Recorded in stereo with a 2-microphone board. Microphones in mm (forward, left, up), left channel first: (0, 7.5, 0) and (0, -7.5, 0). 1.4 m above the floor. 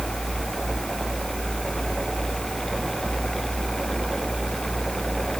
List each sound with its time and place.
Only background noise.